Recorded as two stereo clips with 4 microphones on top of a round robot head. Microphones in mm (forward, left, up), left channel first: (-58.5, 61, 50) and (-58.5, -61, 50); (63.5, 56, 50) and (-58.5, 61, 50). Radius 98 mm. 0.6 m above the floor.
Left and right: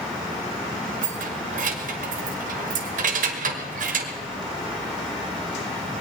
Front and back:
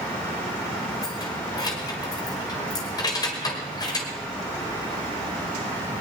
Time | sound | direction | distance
1.0 | keys jangling | 65° right | 1.6 m